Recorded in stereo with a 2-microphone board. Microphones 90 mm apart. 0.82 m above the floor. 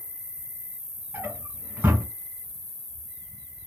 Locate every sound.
0.0 s an insect: 45° left (ahead or behind), 1.1 m
1.1 s a drawer: 25° right (ahead or behind), 1.4 m